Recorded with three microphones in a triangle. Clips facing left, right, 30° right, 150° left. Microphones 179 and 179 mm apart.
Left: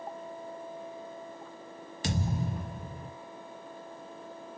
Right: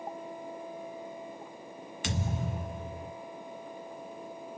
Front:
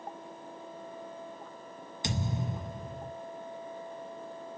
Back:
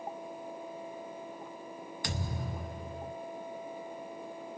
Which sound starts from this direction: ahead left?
A thud, at 2.0 s.